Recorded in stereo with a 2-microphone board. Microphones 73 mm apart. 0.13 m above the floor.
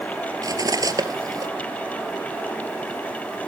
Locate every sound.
0.4 s cutlery clinking: 60° right (ahead or behind), 1.5 m